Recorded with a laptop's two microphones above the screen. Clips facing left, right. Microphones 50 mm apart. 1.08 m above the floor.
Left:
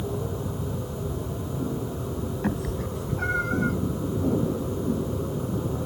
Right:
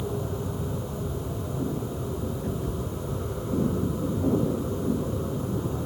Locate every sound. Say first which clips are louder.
2.4 s a cat meowing: left 2 dB; 85° left; by 3.8 s 80° left